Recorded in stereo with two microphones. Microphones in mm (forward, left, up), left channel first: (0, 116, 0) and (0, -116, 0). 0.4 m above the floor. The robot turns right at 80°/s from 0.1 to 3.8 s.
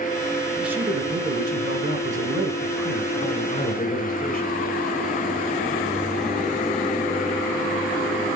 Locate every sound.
0.6 s a man speaking: straight behind, 1.7 m; by 4.5 s 80° left, 1.7 m